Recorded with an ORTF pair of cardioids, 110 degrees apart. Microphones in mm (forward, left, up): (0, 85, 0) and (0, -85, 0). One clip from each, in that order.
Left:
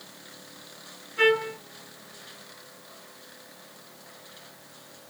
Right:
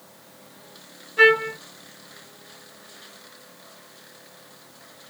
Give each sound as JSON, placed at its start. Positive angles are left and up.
{"t": 1.2, "sound": "a trumpet", "azimuth_deg": -30, "distance_m": 2.0}